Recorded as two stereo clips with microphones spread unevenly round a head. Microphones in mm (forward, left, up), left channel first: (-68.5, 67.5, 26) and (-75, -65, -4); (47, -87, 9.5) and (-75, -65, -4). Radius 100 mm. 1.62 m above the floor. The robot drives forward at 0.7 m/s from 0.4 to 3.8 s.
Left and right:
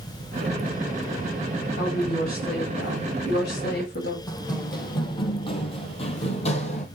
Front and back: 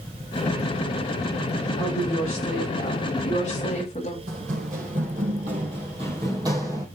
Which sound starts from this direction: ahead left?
A woman speaking, at 1.8 s.